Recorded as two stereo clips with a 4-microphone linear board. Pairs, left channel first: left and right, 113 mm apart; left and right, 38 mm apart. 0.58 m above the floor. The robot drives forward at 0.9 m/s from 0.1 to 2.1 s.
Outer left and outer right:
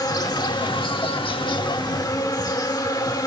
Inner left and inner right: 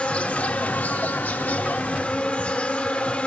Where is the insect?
35° left (ahead or behind), 1.4 m.